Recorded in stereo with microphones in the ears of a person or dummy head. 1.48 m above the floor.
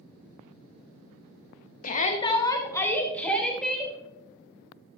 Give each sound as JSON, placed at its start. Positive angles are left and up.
{"t": 1.8, "sound": "a shout", "side_deg": 45, "distance_m": 0.8}